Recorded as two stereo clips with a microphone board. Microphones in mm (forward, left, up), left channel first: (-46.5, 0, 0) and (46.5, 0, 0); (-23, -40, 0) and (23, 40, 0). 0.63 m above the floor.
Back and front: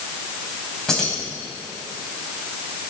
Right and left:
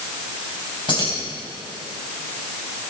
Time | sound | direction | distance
0.9 | keys jangling | 95° right | 3.5 m